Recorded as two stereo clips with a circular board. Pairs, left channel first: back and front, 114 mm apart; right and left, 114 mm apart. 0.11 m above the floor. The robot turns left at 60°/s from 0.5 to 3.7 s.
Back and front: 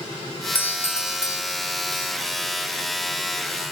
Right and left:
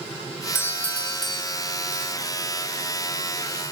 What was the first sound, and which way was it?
A doorbell, 130° right.